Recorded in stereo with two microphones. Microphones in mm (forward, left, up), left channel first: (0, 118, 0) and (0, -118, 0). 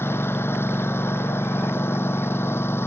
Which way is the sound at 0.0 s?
10° left (ahead or behind).